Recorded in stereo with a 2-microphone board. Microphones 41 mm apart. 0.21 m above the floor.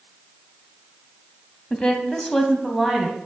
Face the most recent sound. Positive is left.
turn(degrees=-5)  # may be behind; listen again after turning